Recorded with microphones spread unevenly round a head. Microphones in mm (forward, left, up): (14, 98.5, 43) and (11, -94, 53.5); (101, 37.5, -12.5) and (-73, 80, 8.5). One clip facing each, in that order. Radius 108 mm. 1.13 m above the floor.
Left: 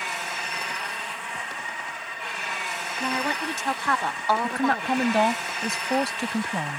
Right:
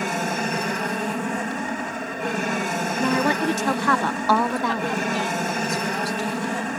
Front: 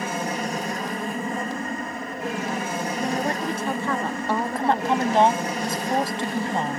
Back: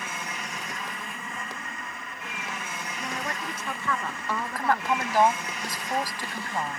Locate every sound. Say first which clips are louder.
0.0 s an aircraft: right 11 dB, front 11 dB; 60° right
3.0 s a woman speaking: right 7 dB, front 8 dB; 75° right
4.4 s a woman speaking: right 1 dB, front 2 dB; 50° left